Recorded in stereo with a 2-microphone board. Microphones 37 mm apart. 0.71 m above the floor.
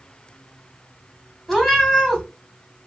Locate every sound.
1.5 s a cat meowing: centre (ahead or behind), 1.4 m